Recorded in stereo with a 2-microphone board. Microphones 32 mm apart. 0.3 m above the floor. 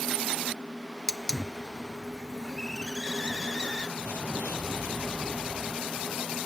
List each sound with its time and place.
1.1 s a hiss: 15° left (ahead or behind)
4.0 s an explosion: 75° left (ahead or behind)